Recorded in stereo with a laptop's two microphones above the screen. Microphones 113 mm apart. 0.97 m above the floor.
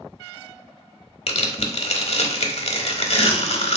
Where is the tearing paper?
65° left (ahead or behind), 0.6 m.